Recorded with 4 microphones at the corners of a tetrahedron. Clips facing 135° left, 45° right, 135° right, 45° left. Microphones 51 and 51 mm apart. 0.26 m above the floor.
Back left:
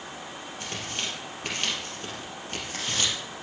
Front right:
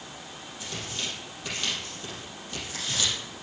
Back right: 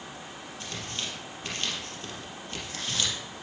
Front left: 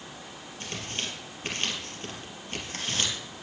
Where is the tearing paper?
100° left, 4 m.